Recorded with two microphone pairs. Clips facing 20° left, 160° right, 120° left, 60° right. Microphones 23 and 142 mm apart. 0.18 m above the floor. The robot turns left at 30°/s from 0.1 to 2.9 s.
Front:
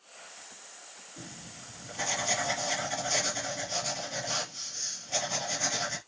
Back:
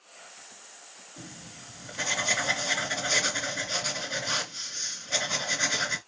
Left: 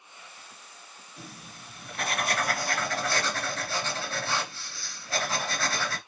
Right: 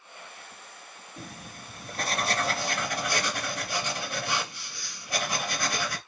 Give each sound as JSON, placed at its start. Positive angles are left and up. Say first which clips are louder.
{"t": 1.2, "sound": "writing", "louder": "back 1 dB, right 3 dB", "azimuth_deg": -80, "distance_m": 2.0}